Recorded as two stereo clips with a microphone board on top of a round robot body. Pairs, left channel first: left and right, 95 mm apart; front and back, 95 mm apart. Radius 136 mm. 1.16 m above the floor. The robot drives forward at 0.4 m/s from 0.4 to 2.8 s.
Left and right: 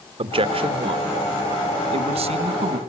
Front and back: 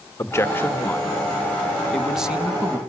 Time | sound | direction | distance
0.2 | a man speaking | 65° right | 1.6 m